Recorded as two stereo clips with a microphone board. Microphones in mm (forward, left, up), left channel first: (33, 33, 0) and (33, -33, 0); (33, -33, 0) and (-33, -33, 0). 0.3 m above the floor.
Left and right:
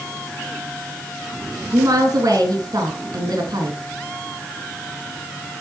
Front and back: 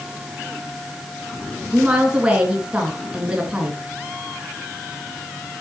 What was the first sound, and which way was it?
A woman speaking, 105° right.